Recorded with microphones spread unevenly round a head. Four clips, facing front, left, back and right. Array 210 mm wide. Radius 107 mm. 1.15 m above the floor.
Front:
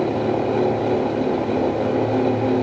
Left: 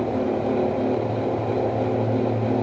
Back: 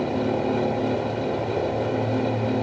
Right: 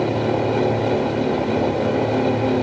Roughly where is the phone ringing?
No phone ringing in this recording.